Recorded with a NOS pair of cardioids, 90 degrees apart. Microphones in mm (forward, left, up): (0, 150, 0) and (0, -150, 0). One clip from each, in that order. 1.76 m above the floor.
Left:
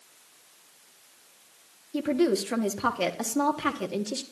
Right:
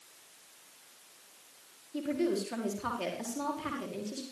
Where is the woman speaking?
55° left, 4.5 m; by 4.2 s 70° left, 5 m.